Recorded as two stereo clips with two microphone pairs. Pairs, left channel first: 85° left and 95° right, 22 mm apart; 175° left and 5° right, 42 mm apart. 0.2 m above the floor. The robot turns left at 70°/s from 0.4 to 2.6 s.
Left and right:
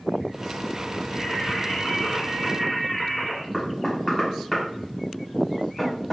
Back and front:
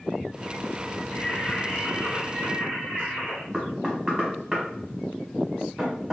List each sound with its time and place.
1.1 s singing: 160° left, 2.0 m; by 3.4 s 55° left, 2.0 m
3.5 s knocking: 45° left, 1.0 m